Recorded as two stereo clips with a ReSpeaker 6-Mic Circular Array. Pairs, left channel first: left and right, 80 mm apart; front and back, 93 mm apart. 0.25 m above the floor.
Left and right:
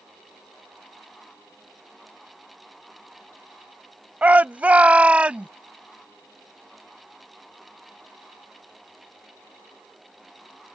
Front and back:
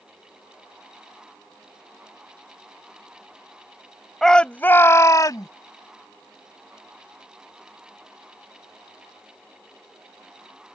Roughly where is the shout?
Right.